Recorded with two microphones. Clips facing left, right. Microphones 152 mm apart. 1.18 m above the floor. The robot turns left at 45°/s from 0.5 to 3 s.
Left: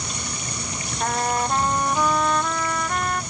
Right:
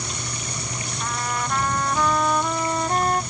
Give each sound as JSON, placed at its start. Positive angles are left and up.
{"t": 1.0, "sound": "a trumpet", "azimuth_deg": 55}